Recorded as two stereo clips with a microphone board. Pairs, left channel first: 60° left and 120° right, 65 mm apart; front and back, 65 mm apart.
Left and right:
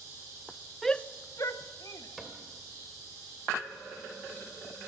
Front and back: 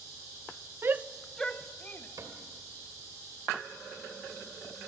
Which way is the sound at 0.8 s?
145° left.